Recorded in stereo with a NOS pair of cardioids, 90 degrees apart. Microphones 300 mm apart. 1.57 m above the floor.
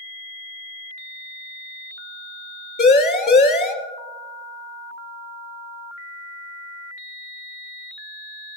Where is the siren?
35° left, 3.5 m.